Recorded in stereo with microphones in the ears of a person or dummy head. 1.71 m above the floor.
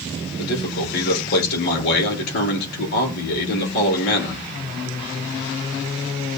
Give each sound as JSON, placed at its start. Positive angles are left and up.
{"t": 0.4, "sound": "a man speaking", "side_deg": 60, "distance_m": 5.5}